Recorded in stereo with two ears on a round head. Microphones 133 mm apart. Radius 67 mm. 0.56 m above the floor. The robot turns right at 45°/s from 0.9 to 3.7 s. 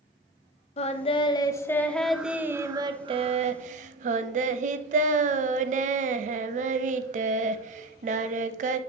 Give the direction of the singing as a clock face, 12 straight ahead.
8 o'clock.